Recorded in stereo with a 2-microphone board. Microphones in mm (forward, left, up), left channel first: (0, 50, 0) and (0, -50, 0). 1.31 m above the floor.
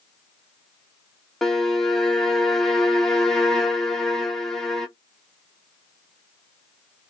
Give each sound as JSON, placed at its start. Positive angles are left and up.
{"t": 1.4, "sound": "a violin", "side_deg": 5, "distance_m": 0.7}